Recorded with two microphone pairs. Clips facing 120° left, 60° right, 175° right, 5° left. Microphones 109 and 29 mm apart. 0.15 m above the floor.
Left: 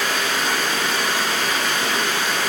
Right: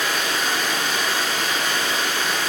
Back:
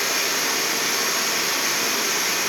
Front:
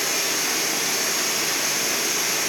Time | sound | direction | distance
0.0 | running water | 115° left | 4.5 m